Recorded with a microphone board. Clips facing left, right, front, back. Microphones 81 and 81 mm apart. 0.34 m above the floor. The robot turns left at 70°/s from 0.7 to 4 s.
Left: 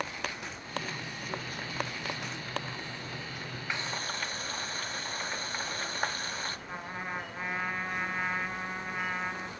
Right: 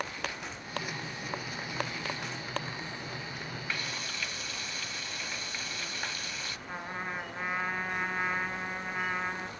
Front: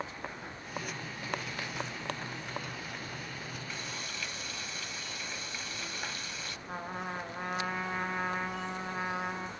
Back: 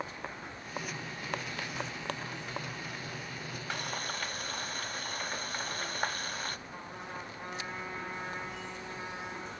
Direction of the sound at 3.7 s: 160° left.